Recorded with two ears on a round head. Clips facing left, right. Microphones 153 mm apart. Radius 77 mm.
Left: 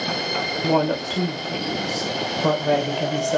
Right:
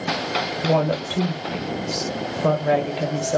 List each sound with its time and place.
0.6 s a woman speaking: 5° right (ahead or behind), 1.1 m